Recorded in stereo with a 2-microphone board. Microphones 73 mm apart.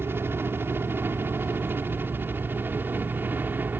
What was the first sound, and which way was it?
A helicopter, 30° right (ahead or behind).